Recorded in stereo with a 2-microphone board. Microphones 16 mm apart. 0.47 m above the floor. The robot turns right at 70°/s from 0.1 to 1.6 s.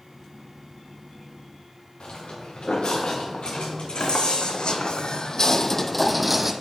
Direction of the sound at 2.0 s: 75° left (ahead or behind).